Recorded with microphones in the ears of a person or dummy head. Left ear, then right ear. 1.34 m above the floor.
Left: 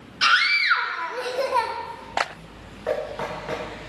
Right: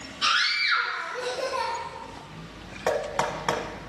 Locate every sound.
0.2 s a scream: 65° left (ahead or behind), 1.1 m
2.9 s knocking: 75° right (ahead or behind), 1.2 m